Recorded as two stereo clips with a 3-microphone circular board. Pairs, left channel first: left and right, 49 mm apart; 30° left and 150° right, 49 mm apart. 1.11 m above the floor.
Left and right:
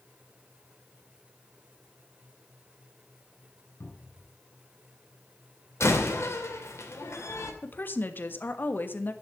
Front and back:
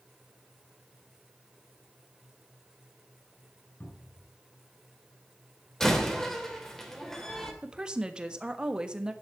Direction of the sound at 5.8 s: 110° left.